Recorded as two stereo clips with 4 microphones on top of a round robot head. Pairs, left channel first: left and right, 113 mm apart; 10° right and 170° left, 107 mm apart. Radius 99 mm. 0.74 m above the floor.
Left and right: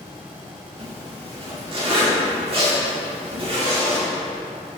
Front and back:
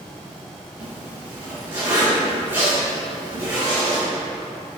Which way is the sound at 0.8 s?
120° right.